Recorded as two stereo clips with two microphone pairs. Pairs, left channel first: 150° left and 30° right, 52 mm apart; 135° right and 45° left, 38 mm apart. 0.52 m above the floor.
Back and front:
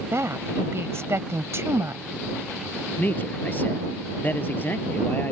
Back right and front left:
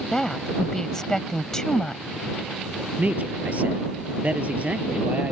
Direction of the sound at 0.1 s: 60° right.